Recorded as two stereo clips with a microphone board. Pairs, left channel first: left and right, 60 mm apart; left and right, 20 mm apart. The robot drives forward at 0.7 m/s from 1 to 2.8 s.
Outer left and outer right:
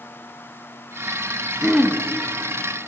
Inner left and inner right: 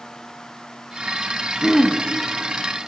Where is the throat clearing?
5° right (ahead or behind), 0.9 m.